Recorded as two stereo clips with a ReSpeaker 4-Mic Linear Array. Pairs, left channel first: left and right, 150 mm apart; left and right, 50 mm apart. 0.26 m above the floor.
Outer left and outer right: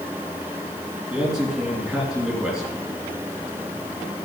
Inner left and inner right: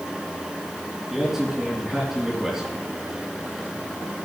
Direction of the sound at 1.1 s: 5° right (ahead or behind).